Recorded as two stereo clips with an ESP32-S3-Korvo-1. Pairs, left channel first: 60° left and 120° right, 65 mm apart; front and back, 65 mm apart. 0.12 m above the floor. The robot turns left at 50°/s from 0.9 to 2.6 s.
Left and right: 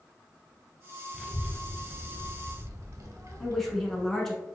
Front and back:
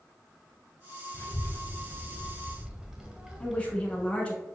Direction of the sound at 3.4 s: 15° right.